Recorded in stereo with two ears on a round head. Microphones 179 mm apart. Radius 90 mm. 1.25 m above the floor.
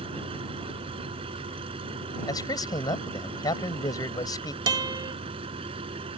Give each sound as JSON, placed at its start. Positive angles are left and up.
{"t": 0.0, "sound": "an engine running", "side_deg": -25}
{"t": 2.3, "sound": "a man speaking", "side_deg": 20}
{"t": 4.7, "sound": "a guitar", "side_deg": -20}